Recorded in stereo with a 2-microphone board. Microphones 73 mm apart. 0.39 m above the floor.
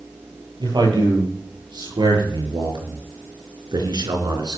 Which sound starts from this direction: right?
A man speaking, at 0.6 s.